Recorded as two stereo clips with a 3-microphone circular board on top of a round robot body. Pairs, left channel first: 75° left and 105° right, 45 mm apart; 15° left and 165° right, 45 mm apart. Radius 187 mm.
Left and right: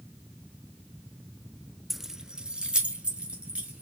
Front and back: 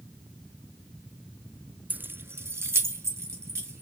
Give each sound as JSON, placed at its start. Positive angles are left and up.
{"t": 1.9, "sound": "keys jangling", "azimuth_deg": 165, "distance_m": 0.5}